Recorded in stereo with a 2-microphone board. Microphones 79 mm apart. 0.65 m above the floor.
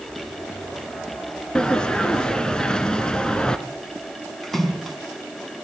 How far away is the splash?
About 4 m.